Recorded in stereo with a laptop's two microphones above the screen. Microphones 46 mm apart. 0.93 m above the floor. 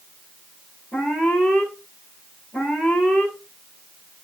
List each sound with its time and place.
0.9 s an alarm: 60° left (ahead or behind), 7 m